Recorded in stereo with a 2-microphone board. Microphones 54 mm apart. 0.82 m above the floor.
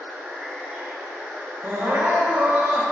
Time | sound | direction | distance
0.0 | running water | 20° right (ahead or behind) | 1.6 m
1.6 | crying | 40° right (ahead or behind) | 0.6 m